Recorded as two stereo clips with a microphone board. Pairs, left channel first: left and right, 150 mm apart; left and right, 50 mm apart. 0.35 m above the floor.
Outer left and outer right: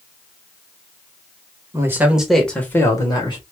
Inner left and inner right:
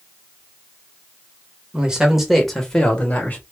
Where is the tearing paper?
No tearing paper in this recording.